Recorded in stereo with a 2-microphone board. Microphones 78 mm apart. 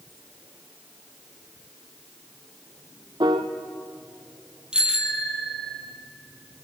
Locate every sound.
3.2 s a piano: 70° right (ahead or behind), 1.7 m
4.7 s a bicycle bell: 10° right (ahead or behind), 3 m